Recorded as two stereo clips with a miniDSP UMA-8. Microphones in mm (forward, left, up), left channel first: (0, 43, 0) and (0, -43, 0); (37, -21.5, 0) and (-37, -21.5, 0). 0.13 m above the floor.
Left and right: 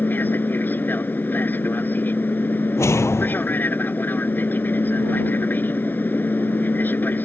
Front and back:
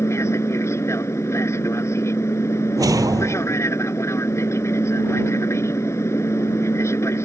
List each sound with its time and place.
0.0 s an aircraft: 30° left
2.8 s a whoosh: 145° left